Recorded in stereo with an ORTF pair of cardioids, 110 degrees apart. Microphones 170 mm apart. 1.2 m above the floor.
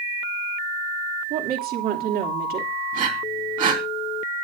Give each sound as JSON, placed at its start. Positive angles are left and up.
{"t": 1.3, "sound": "a woman speaking", "azimuth_deg": -65, "distance_m": 3.0}
{"t": 2.9, "sound": "breathing", "azimuth_deg": -55, "distance_m": 3.0}